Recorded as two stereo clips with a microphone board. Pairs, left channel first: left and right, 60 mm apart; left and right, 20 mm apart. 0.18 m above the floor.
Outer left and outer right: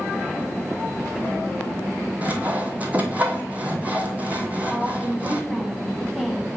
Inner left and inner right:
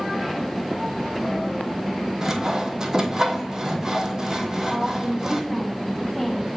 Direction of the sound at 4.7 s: Centre (ahead or behind).